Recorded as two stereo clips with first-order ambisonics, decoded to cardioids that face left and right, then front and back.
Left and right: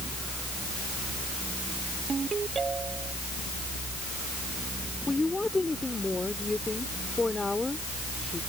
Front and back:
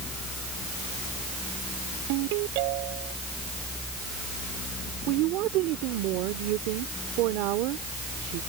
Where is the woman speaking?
170° left.